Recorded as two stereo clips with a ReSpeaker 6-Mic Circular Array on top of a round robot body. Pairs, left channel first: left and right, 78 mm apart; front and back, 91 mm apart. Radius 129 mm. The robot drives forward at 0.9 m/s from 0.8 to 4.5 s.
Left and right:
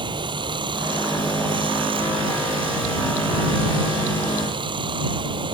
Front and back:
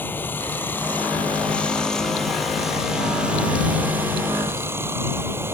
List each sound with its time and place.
0.0 s running water: 70° right; by 5.5 s 115° right